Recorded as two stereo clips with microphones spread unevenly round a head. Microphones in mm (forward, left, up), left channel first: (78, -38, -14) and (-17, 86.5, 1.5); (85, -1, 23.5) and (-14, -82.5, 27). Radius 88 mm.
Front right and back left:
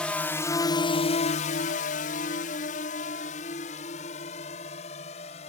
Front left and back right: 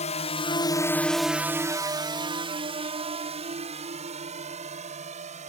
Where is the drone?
30° left; by 5.5 s 110° right.